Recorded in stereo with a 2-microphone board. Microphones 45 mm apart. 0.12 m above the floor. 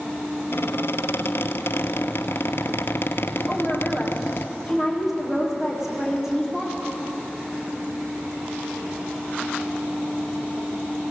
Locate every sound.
0.5 s a squeak: 65° left (ahead or behind), 1.0 m
3.5 s a woman speaking: 10° right (ahead or behind), 7 m